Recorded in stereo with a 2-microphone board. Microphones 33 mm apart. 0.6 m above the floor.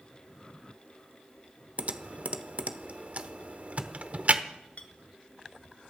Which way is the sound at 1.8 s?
45° right (ahead or behind).